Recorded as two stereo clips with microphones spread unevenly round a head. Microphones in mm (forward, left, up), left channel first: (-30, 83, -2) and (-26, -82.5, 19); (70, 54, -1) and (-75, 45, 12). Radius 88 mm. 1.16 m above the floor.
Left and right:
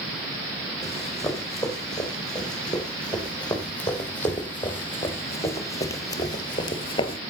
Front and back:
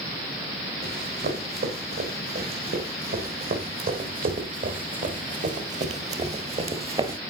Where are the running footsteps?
Straight behind, 4.5 m; by 7.2 s 145° left, 1.5 m.